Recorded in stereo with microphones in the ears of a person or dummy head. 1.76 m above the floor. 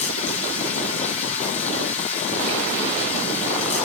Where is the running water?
40° left (ahead or behind), 4.5 m.